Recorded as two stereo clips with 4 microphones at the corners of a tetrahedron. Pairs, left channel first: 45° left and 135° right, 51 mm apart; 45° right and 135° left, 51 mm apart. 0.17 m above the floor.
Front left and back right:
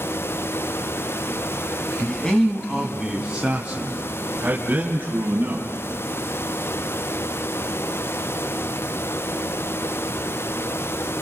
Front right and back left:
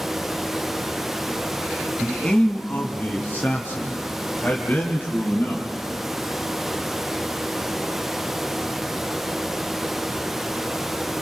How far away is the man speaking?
About 1.6 m.